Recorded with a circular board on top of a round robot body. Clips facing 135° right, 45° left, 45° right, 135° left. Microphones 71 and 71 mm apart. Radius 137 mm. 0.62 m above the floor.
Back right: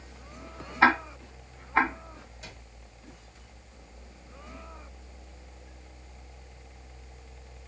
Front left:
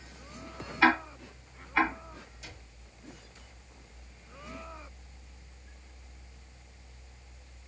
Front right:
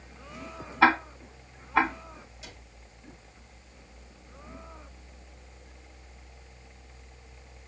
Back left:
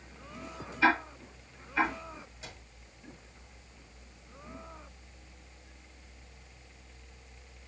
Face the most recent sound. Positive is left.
turn(degrees=-170)